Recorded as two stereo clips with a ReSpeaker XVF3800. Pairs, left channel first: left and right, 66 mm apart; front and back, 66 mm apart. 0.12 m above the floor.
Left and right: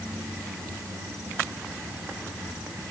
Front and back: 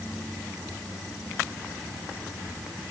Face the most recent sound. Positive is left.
No sound to turn to.